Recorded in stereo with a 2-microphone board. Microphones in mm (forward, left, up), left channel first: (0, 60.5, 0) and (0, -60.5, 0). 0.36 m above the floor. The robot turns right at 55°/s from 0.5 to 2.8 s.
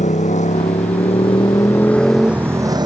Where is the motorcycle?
90° left; by 2.9 s 145° right.